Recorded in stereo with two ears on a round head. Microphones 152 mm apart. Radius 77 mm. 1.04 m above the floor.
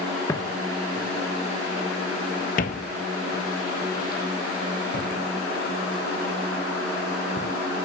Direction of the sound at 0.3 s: 15° left (ahead or behind).